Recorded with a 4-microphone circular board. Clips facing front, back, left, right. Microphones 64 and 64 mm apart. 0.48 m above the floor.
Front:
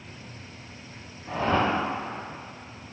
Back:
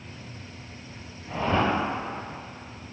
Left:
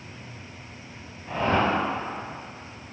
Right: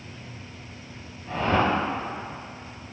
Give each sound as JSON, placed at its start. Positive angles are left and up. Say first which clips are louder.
{"t": 1.3, "sound": "a whoosh", "louder": "even, even", "azimuth_deg": 20, "distance_m": 0.7}